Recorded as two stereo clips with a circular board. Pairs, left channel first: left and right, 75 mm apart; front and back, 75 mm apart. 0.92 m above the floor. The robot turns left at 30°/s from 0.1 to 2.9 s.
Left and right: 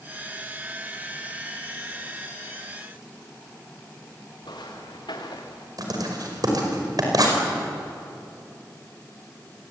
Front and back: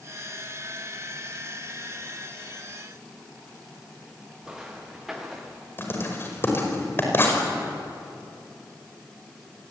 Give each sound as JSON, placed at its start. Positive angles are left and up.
{"t": 4.4, "sound": "footsteps", "azimuth_deg": 100, "distance_m": 5.0}
{"t": 5.8, "sound": "writing", "azimuth_deg": -60, "distance_m": 5.0}